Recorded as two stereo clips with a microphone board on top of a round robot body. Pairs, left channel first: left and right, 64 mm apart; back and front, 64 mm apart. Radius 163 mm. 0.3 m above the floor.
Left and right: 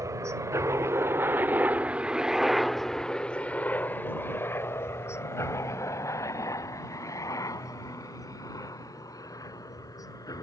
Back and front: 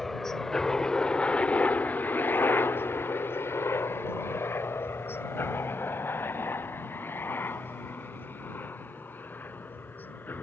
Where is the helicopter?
95° right; by 10.4 s 120° left.